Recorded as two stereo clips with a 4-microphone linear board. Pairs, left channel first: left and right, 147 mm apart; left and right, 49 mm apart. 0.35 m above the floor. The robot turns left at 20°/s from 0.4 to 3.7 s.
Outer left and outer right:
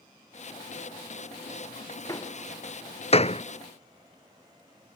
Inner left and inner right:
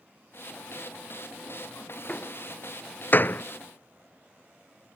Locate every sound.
2.1 s a door slam: 25° left (ahead or behind); by 3.4 s 50° left (ahead or behind)